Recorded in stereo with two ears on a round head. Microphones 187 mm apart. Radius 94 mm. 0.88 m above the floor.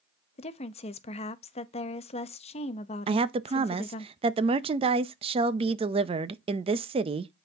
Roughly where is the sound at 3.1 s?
Right.